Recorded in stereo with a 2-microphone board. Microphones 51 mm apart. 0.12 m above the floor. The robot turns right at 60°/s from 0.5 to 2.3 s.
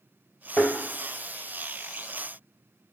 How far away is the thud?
About 1.1 m.